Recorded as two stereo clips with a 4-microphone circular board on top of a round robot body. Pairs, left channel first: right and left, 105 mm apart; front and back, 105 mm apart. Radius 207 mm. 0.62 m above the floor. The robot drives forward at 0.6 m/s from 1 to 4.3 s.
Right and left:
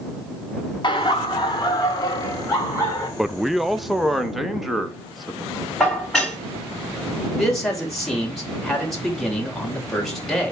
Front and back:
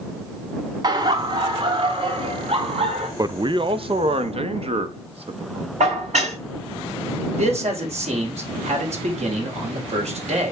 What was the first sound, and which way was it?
Laughter, 130° right.